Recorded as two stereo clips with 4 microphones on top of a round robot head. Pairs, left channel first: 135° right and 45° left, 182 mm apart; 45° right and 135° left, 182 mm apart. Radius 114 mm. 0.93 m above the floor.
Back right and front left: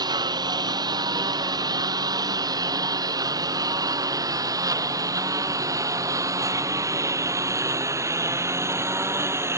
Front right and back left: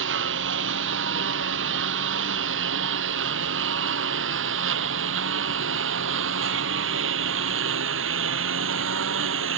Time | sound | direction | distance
0.0 | a lawn mower | 115° left | ?